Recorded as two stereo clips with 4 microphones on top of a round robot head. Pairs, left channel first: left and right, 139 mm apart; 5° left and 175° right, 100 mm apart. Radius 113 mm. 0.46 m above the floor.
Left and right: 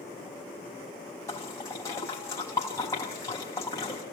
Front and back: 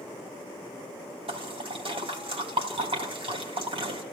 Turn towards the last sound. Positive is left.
turn(degrees=160)